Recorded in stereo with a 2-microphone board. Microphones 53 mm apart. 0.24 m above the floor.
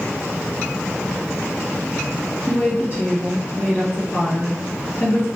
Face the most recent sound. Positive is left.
turn(degrees=45)  # may be behind; listen again after turning